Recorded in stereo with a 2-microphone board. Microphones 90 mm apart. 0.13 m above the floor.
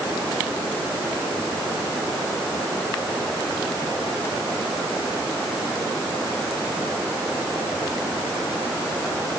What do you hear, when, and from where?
Only background noise.